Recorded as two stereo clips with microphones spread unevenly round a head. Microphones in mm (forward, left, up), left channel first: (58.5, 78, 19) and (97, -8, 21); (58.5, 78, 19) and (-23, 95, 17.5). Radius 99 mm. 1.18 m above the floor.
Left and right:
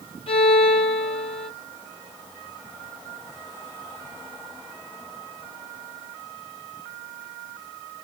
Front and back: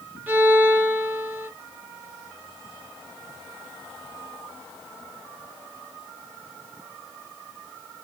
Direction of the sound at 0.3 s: 100° left.